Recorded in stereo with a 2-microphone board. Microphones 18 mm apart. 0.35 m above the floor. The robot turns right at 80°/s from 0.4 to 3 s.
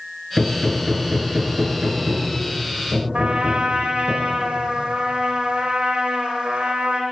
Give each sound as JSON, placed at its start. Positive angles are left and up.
{"t": 0.4, "sound": "hammering", "side_deg": 15, "distance_m": 5.5}
{"t": 3.1, "sound": "a trumpet", "side_deg": -60, "distance_m": 4.5}